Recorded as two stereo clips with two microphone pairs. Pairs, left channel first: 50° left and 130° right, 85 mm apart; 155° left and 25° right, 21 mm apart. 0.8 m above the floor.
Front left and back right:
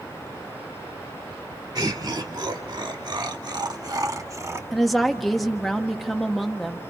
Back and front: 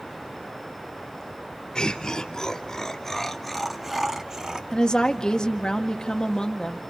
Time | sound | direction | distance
1.8 | laughter | 160° right | 2.5 m
4.7 | a woman speaking | 140° left | 1.4 m